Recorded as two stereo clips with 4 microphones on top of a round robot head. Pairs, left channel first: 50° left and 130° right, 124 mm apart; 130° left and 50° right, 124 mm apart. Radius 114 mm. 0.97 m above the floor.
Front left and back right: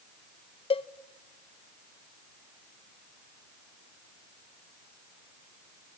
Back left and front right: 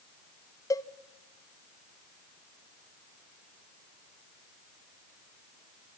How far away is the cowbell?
About 0.5 m.